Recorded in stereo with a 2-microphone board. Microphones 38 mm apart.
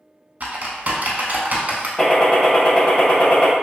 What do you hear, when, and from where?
0.4 s typing on a keyboard: 50° right (ahead or behind), 0.6 m
2.0 s a gunshot: 20° left (ahead or behind), 0.6 m